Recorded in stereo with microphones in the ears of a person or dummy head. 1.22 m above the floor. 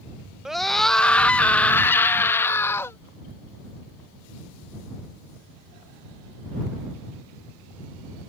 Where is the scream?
Centre (ahead or behind); by 3.0 s 15° left (ahead or behind).